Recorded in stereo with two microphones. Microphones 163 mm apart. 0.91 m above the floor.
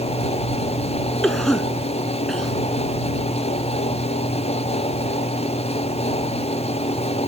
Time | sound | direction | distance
1.2 | a cough | centre (ahead or behind) | ?